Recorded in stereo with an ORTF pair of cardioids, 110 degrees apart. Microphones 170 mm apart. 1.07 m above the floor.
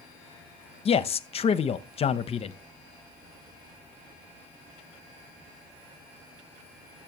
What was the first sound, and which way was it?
A man speaking, 40° left.